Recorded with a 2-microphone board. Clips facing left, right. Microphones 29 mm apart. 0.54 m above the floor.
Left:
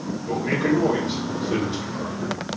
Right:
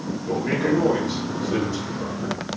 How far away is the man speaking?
About 1.2 m.